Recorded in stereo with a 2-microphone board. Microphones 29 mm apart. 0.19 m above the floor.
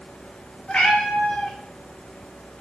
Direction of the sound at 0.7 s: 35° left (ahead or behind).